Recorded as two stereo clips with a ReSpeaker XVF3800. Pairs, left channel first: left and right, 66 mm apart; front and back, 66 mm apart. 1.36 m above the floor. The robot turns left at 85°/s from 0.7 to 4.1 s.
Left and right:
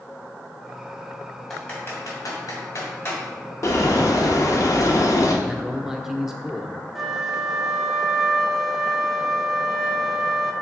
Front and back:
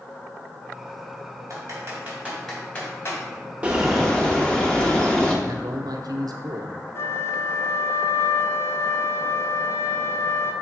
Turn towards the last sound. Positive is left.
turn(degrees=0)